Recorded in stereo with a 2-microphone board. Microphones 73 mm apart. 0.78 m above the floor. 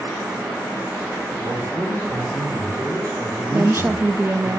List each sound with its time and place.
1.4 s a man speaking: 50° right (ahead or behind), 2.5 m
3.5 s a woman speaking: 30° right (ahead or behind), 0.6 m